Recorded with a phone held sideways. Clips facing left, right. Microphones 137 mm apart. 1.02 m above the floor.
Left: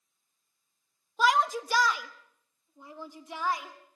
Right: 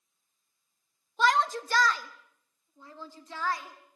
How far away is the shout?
About 1.1 m.